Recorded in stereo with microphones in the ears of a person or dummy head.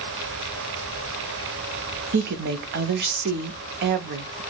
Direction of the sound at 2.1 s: 50° right (ahead or behind).